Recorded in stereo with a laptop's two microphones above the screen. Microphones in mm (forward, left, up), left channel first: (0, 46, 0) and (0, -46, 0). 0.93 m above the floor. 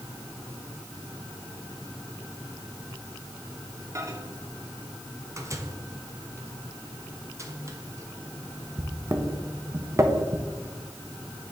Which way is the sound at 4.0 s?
35° right (ahead or behind).